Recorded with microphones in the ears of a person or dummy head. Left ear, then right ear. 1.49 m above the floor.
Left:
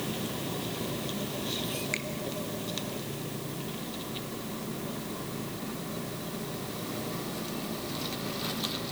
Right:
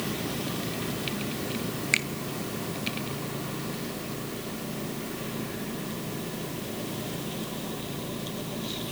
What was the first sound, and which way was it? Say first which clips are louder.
A finger snap: right 11 dB; 20° right (ahead or behind).